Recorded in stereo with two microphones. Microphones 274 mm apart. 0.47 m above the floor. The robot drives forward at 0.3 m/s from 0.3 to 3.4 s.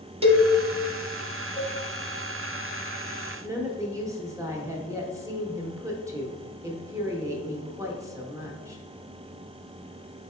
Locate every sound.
0.2 s a cowbell: 20° right (ahead or behind), 0.7 m
1.6 s a cowbell: 35° left (ahead or behind), 1.1 m
3.4 s a woman speaking: 10° right (ahead or behind), 0.8 m